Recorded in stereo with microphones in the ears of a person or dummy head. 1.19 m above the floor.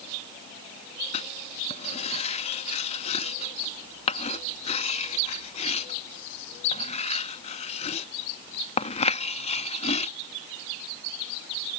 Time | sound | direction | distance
1.1 | writing | 30° left (ahead or behind) | ?